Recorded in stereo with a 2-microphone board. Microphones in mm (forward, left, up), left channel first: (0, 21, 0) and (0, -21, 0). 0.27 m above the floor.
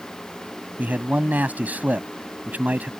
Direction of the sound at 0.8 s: 40° right (ahead or behind).